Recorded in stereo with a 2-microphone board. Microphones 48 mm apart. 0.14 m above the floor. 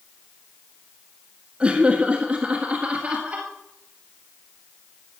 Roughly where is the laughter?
Right.